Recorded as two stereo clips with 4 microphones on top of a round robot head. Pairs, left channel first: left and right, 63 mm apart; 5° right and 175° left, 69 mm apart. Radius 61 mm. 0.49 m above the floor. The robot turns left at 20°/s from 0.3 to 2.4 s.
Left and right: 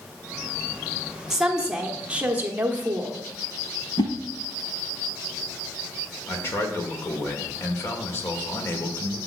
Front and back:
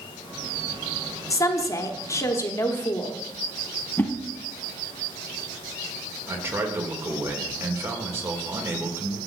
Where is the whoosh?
60° left, 1.2 m.